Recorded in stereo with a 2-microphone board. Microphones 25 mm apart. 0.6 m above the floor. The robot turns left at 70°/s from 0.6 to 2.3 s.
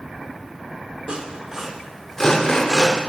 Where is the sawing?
45° right (ahead or behind), 2 m; by 3.0 s 25° left (ahead or behind), 2 m.